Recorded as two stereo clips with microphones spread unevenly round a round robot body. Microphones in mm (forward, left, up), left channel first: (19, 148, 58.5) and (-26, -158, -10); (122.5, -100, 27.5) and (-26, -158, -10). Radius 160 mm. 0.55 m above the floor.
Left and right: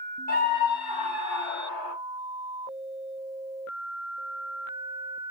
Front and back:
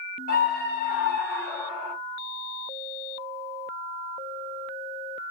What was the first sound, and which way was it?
A scream, 15° left.